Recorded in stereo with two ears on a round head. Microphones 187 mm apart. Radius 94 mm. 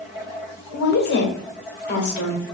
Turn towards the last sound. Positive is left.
turn(degrees=50)  # may be behind; listen again after turning